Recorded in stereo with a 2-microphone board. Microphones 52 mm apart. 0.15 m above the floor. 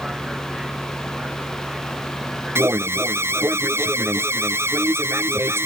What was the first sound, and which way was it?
A vehicle, 15° right (ahead or behind).